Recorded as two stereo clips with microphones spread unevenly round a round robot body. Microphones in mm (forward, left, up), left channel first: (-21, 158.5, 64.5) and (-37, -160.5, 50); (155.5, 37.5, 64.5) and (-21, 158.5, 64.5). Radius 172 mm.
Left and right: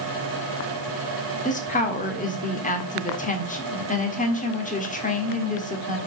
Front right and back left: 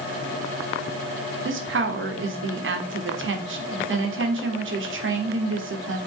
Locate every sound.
1.4 s a woman speaking: 150° left, 1.6 m